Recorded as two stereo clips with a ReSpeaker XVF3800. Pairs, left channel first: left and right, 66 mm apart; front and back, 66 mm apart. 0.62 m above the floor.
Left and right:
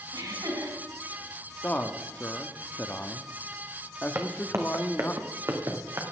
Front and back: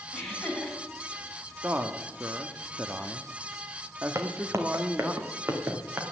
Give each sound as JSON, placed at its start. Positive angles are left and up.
{"t": 0.1, "sound": "laughter", "azimuth_deg": -85, "distance_m": 3.5}
{"t": 1.6, "sound": "a man speaking", "azimuth_deg": 135, "distance_m": 0.8}
{"t": 4.2, "sound": "footsteps", "azimuth_deg": -140, "distance_m": 1.7}